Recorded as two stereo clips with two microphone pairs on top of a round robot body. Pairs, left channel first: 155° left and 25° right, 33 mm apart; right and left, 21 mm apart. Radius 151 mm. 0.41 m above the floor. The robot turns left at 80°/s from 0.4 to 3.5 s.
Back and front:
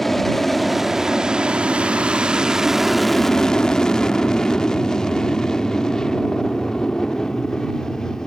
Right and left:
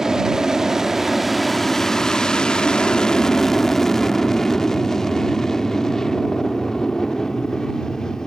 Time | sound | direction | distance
0.0 | an aircraft | 80° left | ?